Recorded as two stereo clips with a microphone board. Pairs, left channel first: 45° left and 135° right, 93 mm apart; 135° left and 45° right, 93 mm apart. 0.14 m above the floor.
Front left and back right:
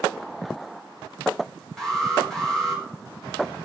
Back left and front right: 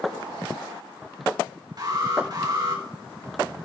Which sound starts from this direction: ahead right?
An alarm, at 1.8 s.